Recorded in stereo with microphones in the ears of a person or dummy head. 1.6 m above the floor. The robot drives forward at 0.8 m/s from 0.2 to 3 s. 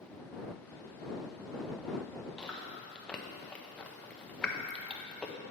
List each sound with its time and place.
2.4 s chewing: centre (ahead or behind), 0.9 m; by 5.3 s 5° left (ahead or behind), 0.5 m